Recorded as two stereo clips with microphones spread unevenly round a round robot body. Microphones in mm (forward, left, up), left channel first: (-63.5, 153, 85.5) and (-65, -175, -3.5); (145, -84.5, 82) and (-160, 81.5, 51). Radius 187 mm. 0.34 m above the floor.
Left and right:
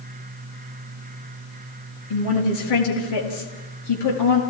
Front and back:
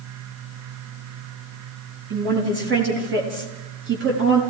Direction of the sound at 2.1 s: 95° left.